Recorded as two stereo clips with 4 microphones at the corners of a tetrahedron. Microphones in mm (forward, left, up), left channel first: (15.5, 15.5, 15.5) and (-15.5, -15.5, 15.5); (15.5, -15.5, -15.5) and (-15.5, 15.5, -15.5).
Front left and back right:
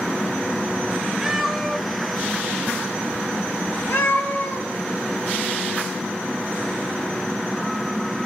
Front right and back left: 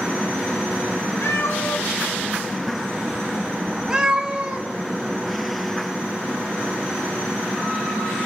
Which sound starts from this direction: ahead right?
A cat meowing, at 1.2 s.